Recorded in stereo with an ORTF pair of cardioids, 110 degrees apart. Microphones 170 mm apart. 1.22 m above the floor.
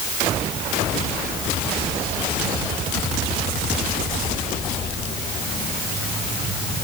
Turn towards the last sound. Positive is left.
No sound to turn to.